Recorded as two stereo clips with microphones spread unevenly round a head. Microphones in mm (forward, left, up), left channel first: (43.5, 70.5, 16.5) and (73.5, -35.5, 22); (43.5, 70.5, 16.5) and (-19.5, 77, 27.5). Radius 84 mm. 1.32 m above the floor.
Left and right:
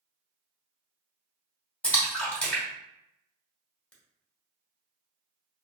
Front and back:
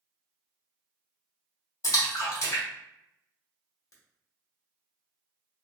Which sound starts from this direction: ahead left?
A splash, at 1.8 s.